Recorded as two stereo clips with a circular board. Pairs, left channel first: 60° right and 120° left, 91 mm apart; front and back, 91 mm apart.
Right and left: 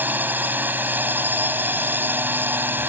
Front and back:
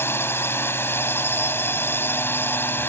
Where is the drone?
55° left; by 2.9 s 60° left.